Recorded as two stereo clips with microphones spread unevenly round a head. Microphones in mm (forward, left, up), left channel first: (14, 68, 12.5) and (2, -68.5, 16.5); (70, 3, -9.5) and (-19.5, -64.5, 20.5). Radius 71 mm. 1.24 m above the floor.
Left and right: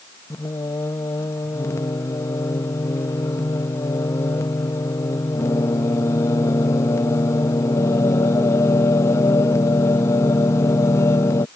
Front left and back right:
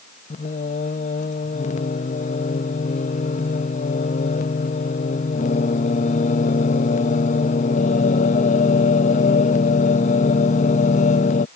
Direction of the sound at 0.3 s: 15° left.